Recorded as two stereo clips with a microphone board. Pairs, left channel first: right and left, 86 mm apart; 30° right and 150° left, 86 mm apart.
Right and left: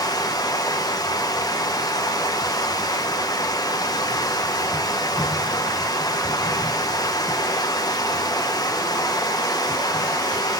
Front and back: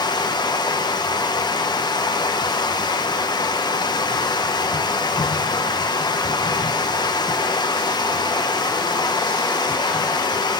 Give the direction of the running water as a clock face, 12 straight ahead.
2 o'clock.